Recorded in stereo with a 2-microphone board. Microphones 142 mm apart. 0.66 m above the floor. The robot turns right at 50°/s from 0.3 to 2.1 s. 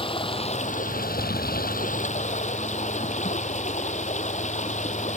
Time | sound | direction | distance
0.0 | running water | 35° left | ?